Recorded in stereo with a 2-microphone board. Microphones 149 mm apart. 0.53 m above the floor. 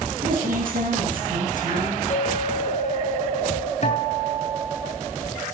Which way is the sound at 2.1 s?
50° left (ahead or behind).